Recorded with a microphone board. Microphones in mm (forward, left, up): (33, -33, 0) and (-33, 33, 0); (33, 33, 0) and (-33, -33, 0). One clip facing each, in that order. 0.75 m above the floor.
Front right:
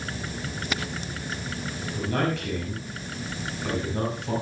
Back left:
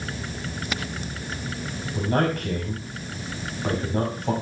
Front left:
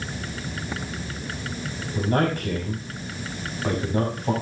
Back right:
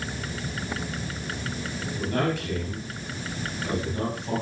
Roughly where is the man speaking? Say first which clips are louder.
Back left 4 dB, front left 4 dB; left.